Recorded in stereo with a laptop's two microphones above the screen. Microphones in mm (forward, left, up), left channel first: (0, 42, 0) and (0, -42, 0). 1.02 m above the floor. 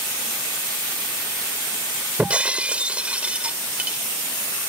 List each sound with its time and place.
2.2 s breaking glass: 15° right (ahead or behind)